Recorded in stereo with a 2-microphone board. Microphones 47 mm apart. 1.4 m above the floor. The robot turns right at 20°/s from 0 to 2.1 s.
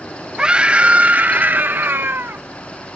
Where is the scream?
160° right; by 2.4 s 125° right.